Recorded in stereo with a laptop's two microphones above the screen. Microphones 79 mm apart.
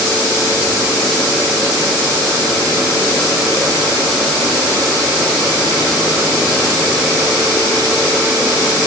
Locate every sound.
Only background noise.